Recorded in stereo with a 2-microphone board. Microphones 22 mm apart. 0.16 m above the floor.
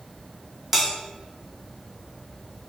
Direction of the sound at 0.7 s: 15° right (ahead or behind).